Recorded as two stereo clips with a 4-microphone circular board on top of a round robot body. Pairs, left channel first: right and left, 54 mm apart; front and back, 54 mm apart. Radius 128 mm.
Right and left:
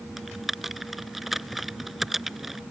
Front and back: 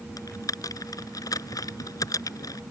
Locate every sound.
0.2 s typing on a keyboard: 5° left